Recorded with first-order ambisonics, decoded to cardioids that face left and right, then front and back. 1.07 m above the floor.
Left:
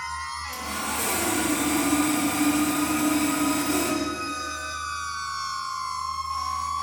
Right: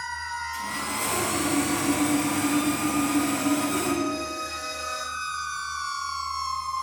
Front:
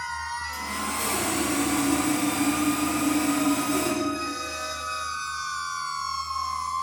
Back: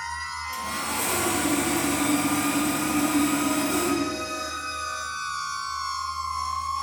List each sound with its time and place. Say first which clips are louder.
0.5 s sawing: even, back 1 dB; 110° left, 1.5 m